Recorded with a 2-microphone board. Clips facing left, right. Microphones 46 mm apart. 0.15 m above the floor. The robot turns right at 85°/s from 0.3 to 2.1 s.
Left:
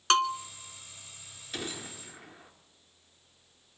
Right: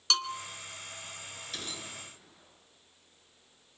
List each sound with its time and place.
0.1 s a bell: 45° left (ahead or behind), 0.8 m; by 0.4 s 50° left (ahead or behind), 0.8 m
1.5 s a gunshot: 20° left, 2.5 m; by 2.5 s 65° left, 2.5 m